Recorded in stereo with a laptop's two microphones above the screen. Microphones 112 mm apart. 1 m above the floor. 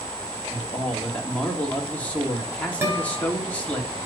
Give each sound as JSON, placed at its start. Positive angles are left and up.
{"t": 0.5, "sound": "a man speaking", "side_deg": 10, "distance_m": 2.0}
{"t": 2.8, "sound": "a guitar", "side_deg": -25, "distance_m": 2.5}